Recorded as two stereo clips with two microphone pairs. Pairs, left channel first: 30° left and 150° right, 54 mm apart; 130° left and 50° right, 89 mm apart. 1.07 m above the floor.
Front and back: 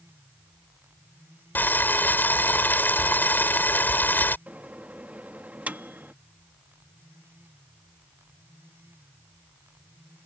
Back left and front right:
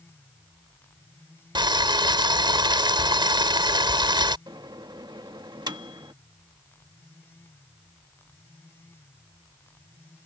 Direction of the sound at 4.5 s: 85° right.